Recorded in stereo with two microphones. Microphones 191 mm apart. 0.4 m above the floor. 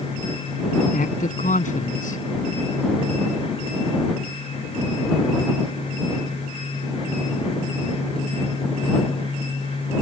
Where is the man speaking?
45° left (ahead or behind).